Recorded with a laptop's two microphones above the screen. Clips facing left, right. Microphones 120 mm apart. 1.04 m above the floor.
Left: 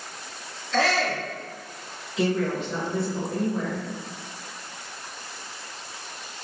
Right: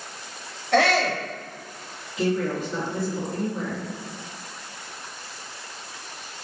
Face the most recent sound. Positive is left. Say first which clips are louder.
# even
turn(degrees=75)  # may be behind; listen again after turning